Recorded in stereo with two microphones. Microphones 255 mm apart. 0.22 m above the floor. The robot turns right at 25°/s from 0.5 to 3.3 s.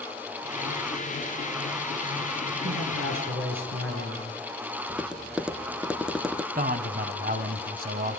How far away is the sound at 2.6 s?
About 4 m.